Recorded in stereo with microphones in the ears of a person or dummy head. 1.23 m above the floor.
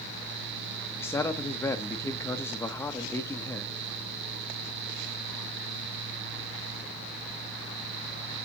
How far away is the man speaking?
About 1.1 m.